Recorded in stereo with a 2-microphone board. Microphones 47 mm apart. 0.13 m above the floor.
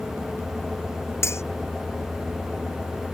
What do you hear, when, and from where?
1.2 s cutlery clinking: 60° left (ahead or behind)